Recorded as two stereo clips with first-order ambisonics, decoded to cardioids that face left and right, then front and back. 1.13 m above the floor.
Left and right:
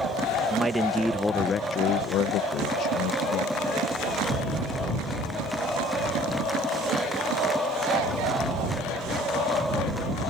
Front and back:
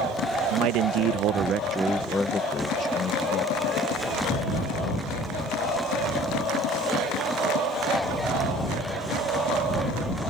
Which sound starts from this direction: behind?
A man speaking, at 0.5 s.